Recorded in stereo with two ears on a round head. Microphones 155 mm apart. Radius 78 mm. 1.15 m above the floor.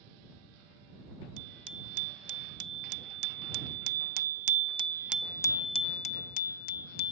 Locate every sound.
1.4 s a bicycle bell: 85° right; by 7.1 s 65° left (ahead or behind)